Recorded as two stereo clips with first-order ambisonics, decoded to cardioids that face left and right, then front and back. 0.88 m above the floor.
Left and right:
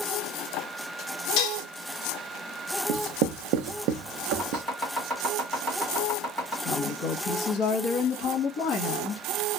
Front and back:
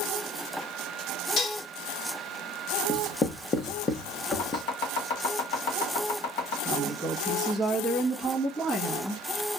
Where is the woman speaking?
85° left, 1.1 m.